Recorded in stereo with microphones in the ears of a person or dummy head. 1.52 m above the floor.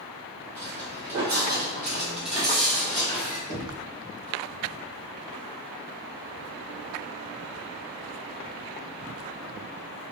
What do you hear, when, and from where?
0.6 s footsteps: 25° right (ahead or behind), 1.8 m; by 3.4 s 10° left (ahead or behind), 2 m
3.5 s knocking: 55° left (ahead or behind), 1.3 m